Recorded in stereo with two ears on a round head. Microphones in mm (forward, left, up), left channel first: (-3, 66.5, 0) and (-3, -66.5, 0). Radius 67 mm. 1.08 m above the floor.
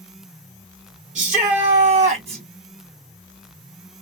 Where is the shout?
50° right (ahead or behind), 2.5 m; by 2.4 s 45° right (ahead or behind), 1.4 m.